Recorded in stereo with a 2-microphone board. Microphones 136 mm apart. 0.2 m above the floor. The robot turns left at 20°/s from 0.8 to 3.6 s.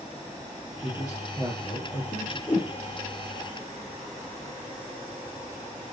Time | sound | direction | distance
0.8 | a man speaking | 160° left | 5 m
2.5 | a whoosh | 30° left (ahead or behind) | 6.5 m